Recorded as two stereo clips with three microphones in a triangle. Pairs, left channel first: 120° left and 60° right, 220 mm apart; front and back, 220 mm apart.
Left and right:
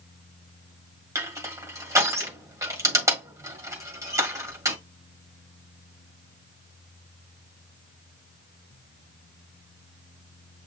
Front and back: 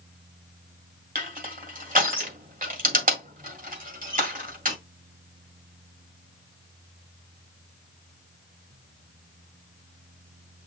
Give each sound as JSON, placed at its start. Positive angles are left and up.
{"t": 1.1, "sound": "crushing", "azimuth_deg": -135, "distance_m": 1.7}